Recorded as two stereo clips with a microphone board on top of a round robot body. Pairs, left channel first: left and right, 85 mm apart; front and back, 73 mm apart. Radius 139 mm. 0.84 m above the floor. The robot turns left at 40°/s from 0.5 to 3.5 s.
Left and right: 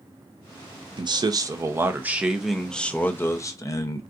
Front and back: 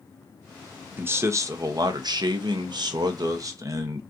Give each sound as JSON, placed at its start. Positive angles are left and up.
{"t": 1.0, "sound": "a man speaking", "azimuth_deg": -120, "distance_m": 0.7}